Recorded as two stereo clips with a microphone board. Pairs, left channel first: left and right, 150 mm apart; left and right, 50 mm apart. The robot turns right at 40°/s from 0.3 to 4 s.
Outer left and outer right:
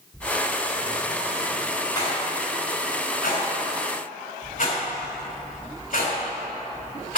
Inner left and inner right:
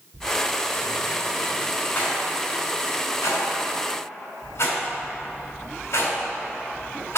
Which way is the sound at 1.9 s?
30° left (ahead or behind).